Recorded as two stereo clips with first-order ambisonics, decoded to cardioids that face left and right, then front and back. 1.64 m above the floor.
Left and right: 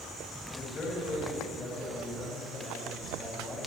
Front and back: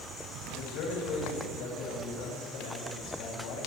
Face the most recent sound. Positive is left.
turn(degrees=20)